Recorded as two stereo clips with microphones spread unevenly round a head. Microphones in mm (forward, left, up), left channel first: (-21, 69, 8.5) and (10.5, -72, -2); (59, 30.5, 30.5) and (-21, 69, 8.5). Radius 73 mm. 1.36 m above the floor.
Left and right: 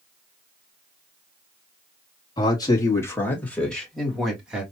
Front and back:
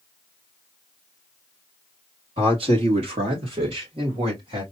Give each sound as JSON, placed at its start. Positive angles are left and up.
{"t": 2.4, "sound": "a man speaking", "azimuth_deg": 165, "distance_m": 2.0}